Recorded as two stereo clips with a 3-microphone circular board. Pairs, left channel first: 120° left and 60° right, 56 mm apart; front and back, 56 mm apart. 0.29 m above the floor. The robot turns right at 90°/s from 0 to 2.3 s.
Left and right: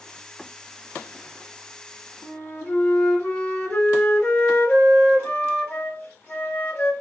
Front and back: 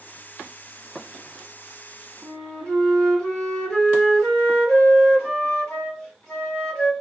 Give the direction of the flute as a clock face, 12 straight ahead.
10 o'clock.